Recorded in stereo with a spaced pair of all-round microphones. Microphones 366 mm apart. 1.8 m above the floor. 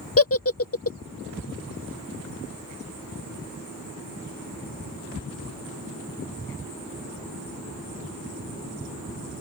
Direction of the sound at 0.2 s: 40° left (ahead or behind).